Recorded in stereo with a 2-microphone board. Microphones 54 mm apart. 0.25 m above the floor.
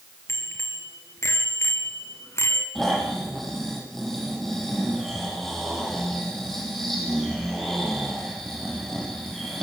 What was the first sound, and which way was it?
A bicycle bell, 55° left (ahead or behind).